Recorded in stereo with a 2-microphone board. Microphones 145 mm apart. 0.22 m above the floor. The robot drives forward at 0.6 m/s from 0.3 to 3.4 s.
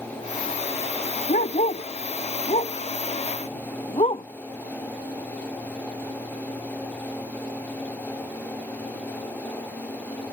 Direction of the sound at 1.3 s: 70° left (ahead or behind).